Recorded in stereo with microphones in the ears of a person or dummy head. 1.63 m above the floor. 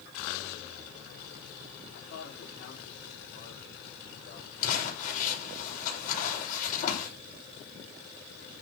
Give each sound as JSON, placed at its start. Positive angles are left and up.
{"t": 1.9, "sound": "a man speaking", "side_deg": 70, "distance_m": 4.0}
{"t": 4.6, "sound": "crumpling", "side_deg": 45, "distance_m": 6.0}